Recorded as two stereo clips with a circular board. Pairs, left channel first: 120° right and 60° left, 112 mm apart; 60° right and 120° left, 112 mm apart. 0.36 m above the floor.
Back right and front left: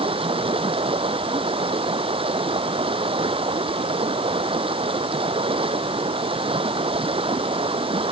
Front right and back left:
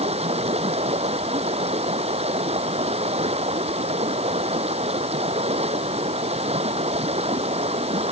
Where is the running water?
100° left.